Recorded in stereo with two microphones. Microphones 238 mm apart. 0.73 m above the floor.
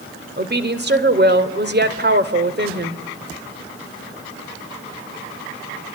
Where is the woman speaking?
45° right (ahead or behind), 2.5 m.